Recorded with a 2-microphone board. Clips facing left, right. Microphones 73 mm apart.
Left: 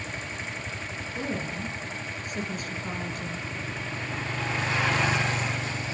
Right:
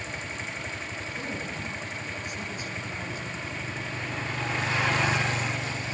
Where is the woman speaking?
25° left (ahead or behind), 5 m; by 3.5 s 60° left (ahead or behind), 5.5 m.